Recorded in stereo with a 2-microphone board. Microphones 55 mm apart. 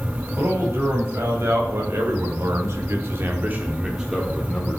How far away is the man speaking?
About 3.5 m.